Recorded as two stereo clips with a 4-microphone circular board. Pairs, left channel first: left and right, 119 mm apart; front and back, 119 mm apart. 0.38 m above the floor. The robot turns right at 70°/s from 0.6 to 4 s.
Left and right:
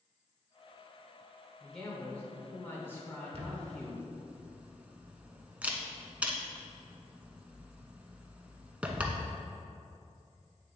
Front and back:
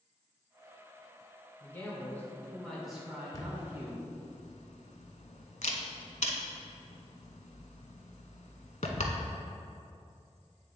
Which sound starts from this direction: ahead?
A man speaking, at 1.6 s.